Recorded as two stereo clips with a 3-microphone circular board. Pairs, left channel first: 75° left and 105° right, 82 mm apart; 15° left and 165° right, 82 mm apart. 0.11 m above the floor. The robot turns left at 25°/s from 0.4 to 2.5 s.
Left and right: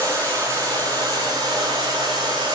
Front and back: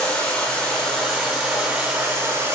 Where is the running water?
55° right, 9.5 m; by 2.6 s 110° right, 9.5 m.